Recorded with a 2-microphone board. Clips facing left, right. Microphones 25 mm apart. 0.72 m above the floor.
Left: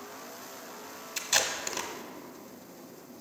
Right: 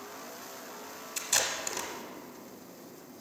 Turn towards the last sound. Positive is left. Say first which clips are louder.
# left 2 dB
turn(degrees=20)  # may be behind; listen again after turning